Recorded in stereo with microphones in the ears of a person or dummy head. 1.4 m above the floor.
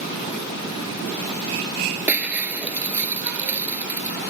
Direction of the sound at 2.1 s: Centre (ahead or behind).